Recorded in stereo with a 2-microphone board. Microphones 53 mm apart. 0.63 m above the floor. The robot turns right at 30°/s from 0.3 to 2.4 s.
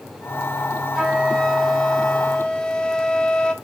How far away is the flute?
About 1.3 m.